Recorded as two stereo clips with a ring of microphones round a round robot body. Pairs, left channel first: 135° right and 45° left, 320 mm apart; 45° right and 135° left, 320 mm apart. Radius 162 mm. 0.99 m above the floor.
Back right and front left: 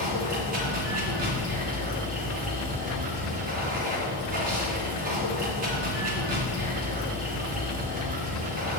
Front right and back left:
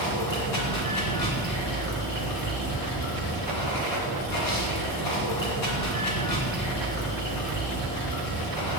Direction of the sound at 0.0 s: 20° right.